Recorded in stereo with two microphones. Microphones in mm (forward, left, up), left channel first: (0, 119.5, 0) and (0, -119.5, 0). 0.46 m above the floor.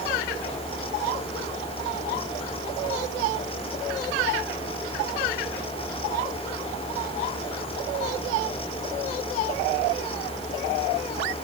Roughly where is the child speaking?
I don't hear a child speaking.